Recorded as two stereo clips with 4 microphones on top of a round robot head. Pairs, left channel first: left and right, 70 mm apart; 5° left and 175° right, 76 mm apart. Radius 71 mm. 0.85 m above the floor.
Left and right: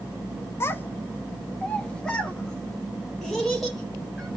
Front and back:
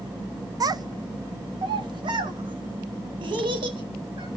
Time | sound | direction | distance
0.6 | a child speaking | 150° left | 0.8 m